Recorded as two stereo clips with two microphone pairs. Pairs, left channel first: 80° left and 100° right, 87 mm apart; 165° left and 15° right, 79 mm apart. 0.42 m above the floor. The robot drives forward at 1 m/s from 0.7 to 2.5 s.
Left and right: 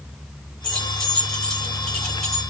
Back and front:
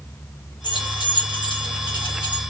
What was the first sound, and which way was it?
Keys jangling, 160° left.